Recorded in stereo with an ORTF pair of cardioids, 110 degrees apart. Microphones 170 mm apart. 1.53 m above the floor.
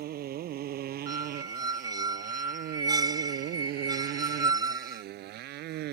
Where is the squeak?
25° right.